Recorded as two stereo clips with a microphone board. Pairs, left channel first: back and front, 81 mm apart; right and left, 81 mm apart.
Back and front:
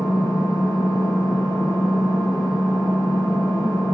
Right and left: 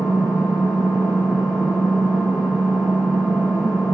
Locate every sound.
0.0 s an engine running: 145° left, 5.5 m